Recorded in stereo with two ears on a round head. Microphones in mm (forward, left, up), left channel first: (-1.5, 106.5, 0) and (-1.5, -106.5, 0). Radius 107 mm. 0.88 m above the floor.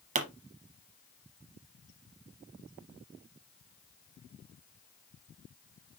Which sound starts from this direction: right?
A pop, at 0.1 s.